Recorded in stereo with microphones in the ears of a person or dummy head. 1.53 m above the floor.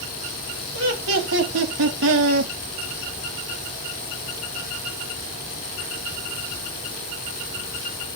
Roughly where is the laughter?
Right.